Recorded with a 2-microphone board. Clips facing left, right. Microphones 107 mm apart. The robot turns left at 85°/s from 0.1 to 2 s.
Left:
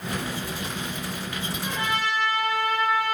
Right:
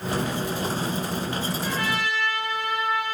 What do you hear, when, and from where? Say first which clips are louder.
1.6 s a trumpet: left 3 dB; 170° left, 3 m; by 3.1 s 135° left, 3 m